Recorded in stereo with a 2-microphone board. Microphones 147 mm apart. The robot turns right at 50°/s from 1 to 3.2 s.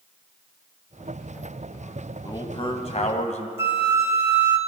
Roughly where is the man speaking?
Ahead left.